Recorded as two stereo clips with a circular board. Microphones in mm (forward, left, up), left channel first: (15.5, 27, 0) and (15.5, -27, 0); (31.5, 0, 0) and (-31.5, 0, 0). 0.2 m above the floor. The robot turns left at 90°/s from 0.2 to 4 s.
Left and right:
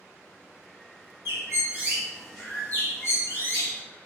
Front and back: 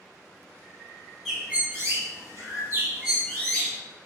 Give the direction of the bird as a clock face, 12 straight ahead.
3 o'clock.